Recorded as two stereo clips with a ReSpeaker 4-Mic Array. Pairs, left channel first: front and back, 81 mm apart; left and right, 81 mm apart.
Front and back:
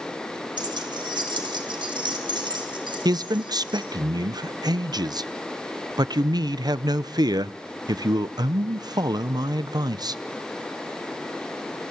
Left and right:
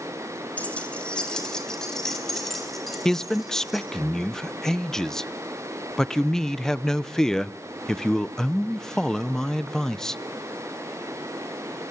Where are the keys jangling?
165° left, 3 m; by 3.9 s straight behind, 6 m.